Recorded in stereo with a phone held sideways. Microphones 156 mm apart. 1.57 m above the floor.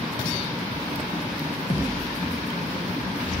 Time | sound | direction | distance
1.7 | a thud | 50° left (ahead or behind) | 2.5 m